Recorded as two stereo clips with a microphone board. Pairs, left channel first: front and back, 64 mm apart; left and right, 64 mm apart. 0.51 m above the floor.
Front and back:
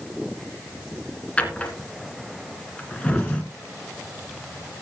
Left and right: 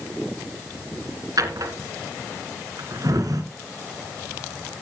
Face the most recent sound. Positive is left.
turn(degrees=-70)